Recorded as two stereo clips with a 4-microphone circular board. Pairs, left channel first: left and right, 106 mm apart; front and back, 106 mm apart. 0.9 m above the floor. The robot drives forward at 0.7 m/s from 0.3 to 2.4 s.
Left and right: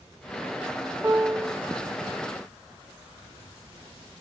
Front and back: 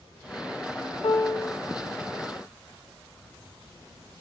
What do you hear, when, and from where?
1.0 s a piano: 25° right, 1.0 m; by 1.6 s 40° right, 0.7 m